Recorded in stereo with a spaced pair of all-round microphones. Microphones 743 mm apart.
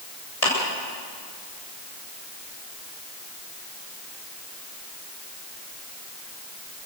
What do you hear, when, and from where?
0.4 s a clap: 55° left (ahead or behind), 7 m